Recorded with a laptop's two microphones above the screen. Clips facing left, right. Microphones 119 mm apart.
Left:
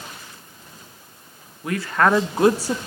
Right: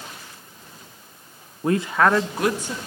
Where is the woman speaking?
40° right (ahead or behind), 0.6 m; by 2.8 s 45° left (ahead or behind), 1.0 m.